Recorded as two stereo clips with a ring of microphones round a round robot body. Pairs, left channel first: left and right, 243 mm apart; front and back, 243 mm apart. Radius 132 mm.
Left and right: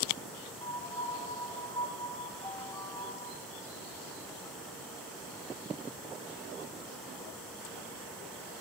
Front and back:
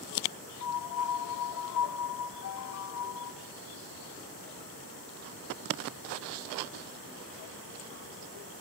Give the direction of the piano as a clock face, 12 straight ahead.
11 o'clock.